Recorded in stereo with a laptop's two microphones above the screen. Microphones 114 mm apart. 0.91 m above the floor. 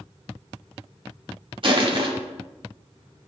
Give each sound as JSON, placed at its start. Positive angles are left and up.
{"t": 1.6, "sound": "crushing", "side_deg": -50, "distance_m": 1.9}